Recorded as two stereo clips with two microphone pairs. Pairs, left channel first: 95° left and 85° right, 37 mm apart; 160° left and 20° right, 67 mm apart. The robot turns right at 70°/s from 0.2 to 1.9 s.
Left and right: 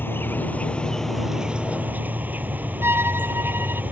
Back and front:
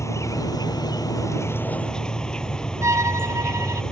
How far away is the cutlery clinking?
No cutlery clinking in this recording.